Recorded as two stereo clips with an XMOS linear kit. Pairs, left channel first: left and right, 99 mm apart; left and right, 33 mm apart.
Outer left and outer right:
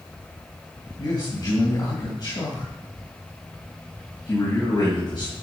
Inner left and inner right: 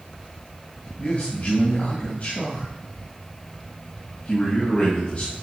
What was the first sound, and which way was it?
A man speaking, 50° left (ahead or behind).